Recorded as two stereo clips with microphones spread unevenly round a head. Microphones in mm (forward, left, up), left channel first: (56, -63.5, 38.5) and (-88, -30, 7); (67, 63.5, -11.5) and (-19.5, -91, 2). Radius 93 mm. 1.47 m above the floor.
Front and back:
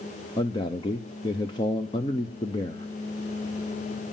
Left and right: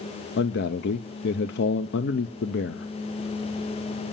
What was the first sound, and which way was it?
A man speaking, 55° left.